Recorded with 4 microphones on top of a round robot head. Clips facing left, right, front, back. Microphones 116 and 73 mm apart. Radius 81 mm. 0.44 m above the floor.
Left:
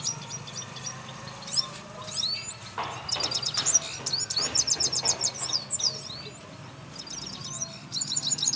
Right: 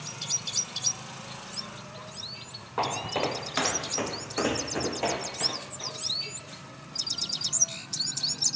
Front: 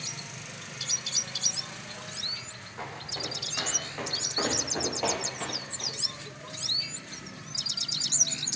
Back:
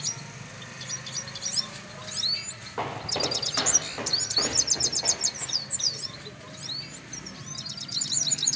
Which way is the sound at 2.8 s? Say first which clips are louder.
Right 6 dB, back 8 dB; 140° right.